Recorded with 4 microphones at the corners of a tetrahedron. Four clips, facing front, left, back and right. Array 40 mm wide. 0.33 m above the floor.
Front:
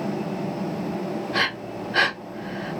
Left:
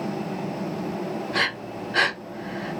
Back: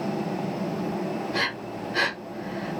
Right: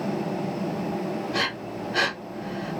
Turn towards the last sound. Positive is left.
turn(degrees=20)